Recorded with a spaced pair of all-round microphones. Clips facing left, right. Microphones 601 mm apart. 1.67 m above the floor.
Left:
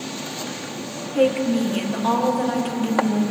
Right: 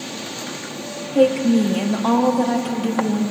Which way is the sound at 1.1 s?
60° right (ahead or behind).